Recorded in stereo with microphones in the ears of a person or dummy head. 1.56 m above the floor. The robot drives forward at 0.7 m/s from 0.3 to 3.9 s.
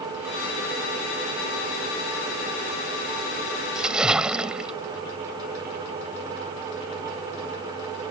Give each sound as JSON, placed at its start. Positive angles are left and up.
{"t": 3.8, "sound": "a splash", "side_deg": -5}